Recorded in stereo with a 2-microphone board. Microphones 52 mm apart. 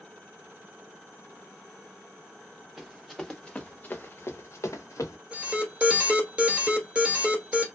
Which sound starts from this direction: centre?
Running footsteps, at 2.8 s.